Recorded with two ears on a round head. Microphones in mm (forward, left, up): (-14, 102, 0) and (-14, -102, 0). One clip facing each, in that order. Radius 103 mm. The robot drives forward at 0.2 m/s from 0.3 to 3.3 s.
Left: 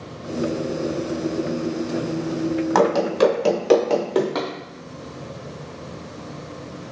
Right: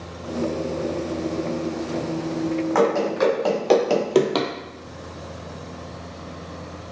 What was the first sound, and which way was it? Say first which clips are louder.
Running footsteps: left 2 dB; 55° left (ahead or behind).